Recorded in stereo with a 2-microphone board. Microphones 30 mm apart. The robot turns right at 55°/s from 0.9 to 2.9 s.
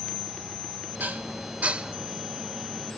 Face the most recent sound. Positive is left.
turn(degrees=10)  # may be behind; listen again after turning